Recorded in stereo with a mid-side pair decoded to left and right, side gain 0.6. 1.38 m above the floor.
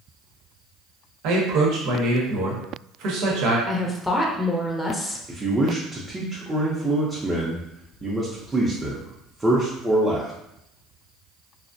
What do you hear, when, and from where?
1.2 s a man speaking: 70° right, 0.9 m
3.7 s a woman speaking: 10° left, 0.6 m
5.3 s a man speaking: 20° right, 0.6 m